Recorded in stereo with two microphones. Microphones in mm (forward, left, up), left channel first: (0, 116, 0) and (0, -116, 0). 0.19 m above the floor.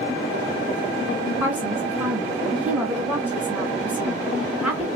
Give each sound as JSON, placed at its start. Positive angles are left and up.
{"t": 1.4, "sound": "a woman speaking", "side_deg": -5, "distance_m": 2.5}